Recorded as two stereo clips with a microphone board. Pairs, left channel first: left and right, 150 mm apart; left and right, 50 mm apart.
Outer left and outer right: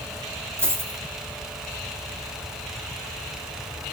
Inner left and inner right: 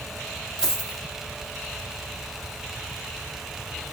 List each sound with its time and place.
0.6 s a dropped coin: 15° right (ahead or behind), 2.5 m